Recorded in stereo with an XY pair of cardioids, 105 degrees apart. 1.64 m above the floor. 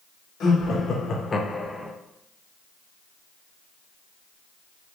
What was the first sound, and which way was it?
Laughter, 65° left.